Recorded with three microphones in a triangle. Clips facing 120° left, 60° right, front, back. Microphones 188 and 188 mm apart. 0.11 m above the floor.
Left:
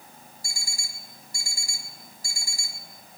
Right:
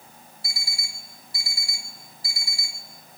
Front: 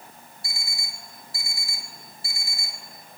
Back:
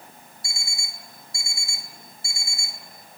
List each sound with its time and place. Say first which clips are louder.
0.4 s an alarm clock: right 1 dB, front 1 dB; 130° left, 0.8 m